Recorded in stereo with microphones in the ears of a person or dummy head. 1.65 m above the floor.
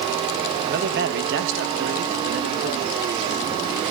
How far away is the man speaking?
About 2 m.